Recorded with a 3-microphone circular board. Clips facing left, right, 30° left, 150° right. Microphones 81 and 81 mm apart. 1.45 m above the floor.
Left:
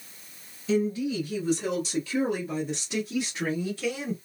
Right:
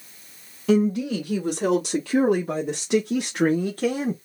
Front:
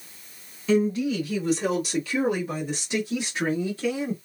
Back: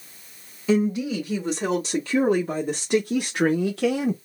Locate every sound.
0.7 s a woman speaking: 80° right, 2 m; by 4.2 s 140° right, 1.1 m